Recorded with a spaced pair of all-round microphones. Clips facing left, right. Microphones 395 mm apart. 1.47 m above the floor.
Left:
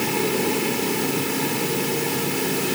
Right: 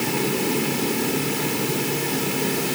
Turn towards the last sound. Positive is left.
No sound to turn to.